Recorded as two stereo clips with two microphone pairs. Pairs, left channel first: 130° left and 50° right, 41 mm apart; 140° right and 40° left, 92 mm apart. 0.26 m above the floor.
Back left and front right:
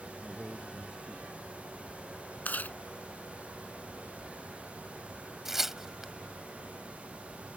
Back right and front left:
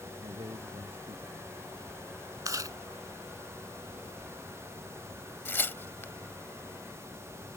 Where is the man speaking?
20° left.